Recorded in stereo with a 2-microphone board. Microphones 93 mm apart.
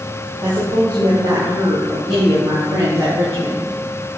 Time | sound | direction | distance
0.4 | a woman speaking | 45° right (ahead or behind) | 3.5 m